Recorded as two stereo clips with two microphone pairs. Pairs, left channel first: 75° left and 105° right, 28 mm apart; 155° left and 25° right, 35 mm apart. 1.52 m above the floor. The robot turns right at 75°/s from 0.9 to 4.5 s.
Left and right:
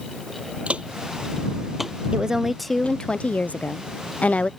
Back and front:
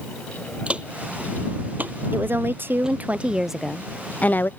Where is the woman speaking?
50° right; by 4.5 s 125° left.